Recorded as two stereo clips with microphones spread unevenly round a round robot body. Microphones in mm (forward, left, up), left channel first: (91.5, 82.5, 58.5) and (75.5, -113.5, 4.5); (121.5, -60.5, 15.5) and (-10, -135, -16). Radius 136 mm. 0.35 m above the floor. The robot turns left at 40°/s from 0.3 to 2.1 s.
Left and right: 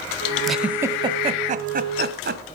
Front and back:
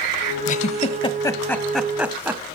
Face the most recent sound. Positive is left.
turn(degrees=-75)